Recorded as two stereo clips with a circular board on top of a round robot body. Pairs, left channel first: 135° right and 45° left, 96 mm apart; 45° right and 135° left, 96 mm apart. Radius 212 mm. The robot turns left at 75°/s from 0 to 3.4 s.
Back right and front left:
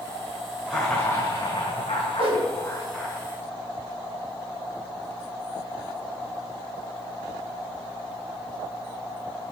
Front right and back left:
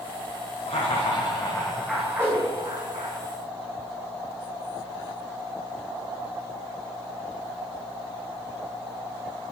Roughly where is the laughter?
Ahead right.